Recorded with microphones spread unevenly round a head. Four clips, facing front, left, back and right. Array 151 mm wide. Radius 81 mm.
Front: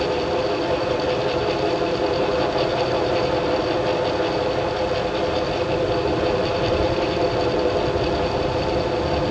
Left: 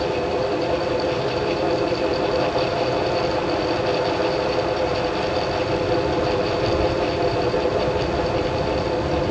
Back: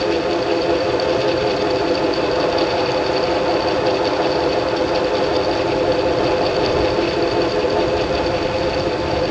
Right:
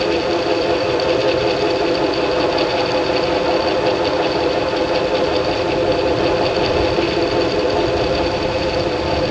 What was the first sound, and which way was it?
Only background noise.